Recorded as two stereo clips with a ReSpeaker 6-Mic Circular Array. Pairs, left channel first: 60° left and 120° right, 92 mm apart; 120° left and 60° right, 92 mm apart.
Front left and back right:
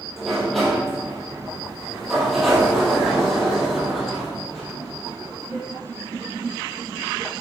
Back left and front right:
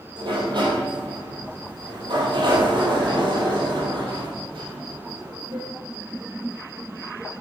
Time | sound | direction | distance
0.2 | a sliding door | 30° right | 2 m